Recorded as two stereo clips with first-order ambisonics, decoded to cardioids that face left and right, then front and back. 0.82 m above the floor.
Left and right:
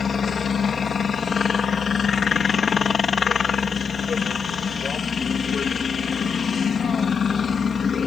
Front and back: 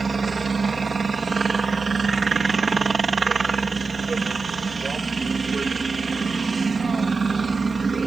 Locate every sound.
0.0 s a helicopter: 135° left